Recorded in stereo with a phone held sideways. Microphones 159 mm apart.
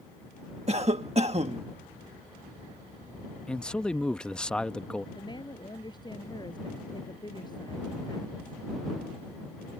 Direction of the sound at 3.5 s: 5° left (ahead or behind).